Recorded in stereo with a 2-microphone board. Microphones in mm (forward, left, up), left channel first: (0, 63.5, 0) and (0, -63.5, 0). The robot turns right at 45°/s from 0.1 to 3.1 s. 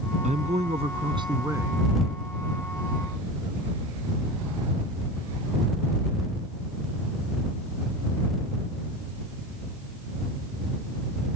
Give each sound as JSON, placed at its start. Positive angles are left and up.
{"t": 0.2, "sound": "a man speaking", "azimuth_deg": -85}